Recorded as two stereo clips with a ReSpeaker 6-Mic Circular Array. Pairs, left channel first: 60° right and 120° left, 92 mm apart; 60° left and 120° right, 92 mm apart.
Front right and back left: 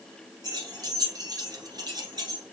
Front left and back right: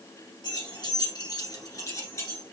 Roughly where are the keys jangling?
Left.